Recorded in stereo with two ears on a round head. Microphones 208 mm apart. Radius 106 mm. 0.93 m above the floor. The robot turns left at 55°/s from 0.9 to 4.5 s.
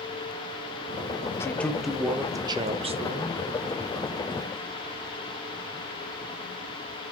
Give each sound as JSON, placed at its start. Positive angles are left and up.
{"t": 1.4, "sound": "a man speaking", "azimuth_deg": 25, "distance_m": 0.8}